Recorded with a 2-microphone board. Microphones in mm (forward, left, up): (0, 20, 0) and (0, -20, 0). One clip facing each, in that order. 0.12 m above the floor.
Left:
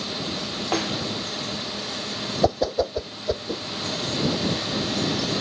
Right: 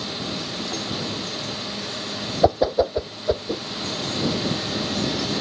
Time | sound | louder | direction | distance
0.7 | a snare drum | left 7 dB | 85° left | ?
2.4 | a whoosh | right 4 dB | 15° right (ahead or behind) | ?